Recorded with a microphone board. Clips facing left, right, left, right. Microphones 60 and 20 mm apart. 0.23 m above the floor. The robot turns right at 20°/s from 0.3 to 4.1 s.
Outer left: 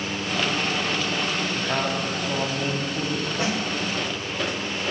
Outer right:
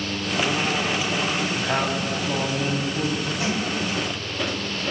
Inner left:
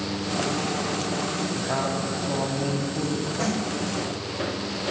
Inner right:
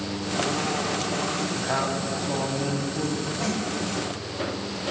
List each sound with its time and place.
1.6 s a man speaking: 30° right, 1.2 m; by 3.3 s 5° left, 1.2 m
3.4 s a snare drum: 50° left (ahead or behind), 3 m; by 3.6 s 45° left (ahead or behind), 3 m